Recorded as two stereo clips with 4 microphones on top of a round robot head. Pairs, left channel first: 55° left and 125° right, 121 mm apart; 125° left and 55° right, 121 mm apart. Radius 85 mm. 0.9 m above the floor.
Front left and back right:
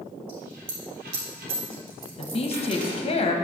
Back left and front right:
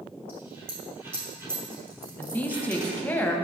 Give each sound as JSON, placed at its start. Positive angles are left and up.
{"t": 0.3, "sound": "a dropped coin", "azimuth_deg": -125, "distance_m": 2.0}
{"t": 2.2, "sound": "a woman speaking", "azimuth_deg": 50, "distance_m": 1.2}